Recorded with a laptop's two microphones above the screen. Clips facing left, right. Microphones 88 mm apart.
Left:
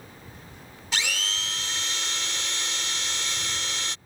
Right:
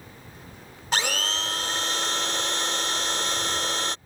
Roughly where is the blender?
Right.